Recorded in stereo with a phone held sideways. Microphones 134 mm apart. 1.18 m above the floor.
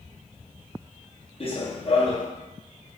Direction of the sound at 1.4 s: 45° left (ahead or behind).